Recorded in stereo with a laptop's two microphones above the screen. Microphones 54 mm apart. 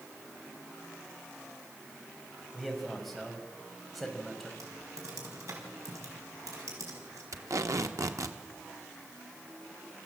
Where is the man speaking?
Centre (ahead or behind), 5 m.